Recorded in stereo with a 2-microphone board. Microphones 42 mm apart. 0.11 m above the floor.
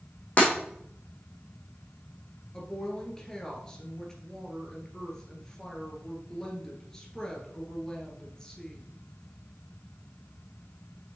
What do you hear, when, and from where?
0.4 s breaking glass: 40° left (ahead or behind), 3 m
2.5 s a woman speaking: 15° left (ahead or behind), 1.8 m